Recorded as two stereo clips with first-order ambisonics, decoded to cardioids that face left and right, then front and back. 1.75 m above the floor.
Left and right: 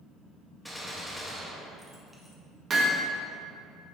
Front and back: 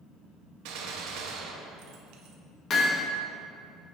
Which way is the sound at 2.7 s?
35° right.